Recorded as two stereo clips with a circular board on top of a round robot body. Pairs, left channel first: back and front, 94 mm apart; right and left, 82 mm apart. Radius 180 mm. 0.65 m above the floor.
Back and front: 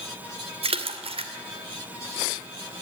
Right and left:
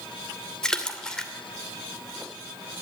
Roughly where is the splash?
Ahead.